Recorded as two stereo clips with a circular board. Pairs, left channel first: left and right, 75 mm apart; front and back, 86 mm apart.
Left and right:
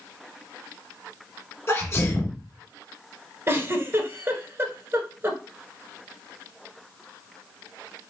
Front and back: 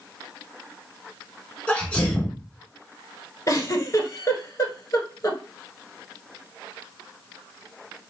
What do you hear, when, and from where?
1.7 s a sneeze: 65° left, 2.0 m
3.5 s a giggle: 45° right, 1.1 m